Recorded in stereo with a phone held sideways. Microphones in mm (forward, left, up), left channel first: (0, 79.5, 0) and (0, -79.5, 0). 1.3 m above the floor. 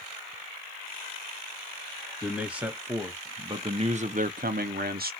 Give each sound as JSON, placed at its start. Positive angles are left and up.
{"t": 2.2, "sound": "a man speaking", "side_deg": -5, "distance_m": 1.4}